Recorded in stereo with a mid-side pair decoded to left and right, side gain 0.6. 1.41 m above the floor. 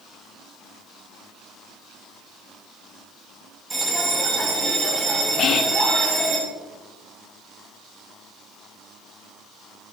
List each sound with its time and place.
3.7 s a bell: 20° right, 6.5 m
5.4 s whispering: 50° left, 1.0 m